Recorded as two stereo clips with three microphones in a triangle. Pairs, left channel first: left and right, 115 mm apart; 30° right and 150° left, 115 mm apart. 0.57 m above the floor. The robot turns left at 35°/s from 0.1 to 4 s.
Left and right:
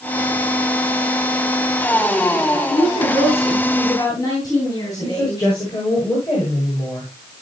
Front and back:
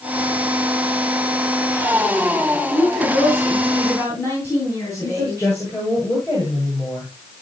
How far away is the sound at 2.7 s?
About 9 m.